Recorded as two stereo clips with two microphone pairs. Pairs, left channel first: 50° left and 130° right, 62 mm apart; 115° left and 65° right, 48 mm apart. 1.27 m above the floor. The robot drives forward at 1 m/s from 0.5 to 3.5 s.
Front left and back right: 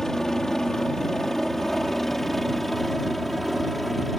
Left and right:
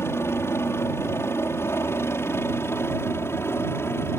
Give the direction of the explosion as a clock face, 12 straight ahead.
No explosion in this recording.